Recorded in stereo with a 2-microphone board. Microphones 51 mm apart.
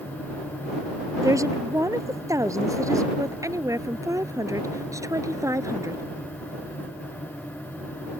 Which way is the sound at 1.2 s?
85° right.